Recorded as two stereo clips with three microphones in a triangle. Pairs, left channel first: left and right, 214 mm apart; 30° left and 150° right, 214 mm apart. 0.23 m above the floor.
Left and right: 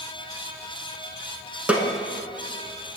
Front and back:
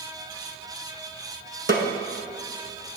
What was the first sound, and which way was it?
A snare drum, 175° right.